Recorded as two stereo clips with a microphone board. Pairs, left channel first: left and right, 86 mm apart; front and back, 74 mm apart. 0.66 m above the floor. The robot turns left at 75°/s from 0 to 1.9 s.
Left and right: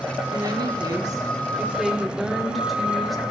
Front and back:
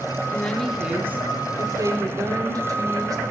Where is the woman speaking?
60° right, 1.8 m; by 3.2 s straight behind, 1.8 m.